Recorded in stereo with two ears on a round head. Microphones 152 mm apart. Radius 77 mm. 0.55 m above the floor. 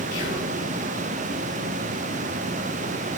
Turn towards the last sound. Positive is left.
turn(degrees=65)  # may be behind; listen again after turning